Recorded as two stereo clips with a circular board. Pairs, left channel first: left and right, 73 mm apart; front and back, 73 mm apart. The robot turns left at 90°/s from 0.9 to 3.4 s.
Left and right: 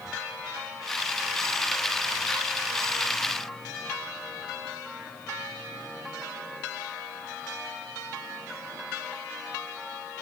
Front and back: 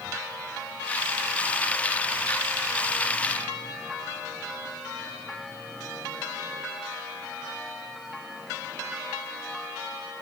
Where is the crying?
I don't hear crying.